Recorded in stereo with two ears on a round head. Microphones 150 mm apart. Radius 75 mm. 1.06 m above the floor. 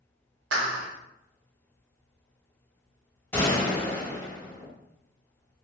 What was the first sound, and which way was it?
A clap, 75° right (ahead or behind).